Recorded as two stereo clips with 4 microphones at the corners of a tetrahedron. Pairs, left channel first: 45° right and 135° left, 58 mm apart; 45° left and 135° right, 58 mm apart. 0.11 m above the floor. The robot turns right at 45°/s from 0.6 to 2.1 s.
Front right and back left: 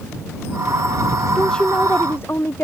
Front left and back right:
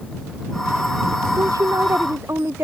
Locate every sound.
1.4 s a woman speaking: 130° right; by 2.6 s 95° right